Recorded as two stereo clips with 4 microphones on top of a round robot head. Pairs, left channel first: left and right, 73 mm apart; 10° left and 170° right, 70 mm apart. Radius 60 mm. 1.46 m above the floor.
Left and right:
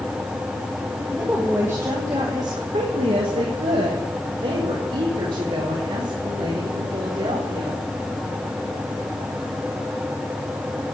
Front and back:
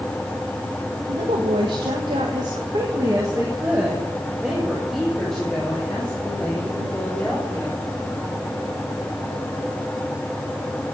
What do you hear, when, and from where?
1.1 s a woman speaking: 170° right, 1.7 m; by 7.8 s 60° right, 4.5 m